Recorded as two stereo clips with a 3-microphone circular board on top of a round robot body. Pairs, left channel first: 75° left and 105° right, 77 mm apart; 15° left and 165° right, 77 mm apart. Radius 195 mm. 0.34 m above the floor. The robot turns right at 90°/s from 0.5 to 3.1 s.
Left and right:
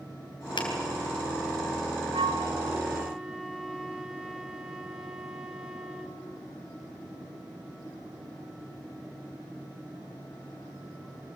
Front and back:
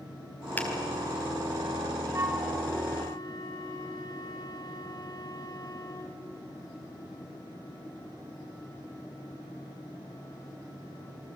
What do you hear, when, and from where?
0.6 s a finger snap: 85° left, 4 m; by 0.7 s 95° left, 4 m
2.1 s a flute: 105° right, 2.0 m; by 6.2 s 20° right, 2.0 m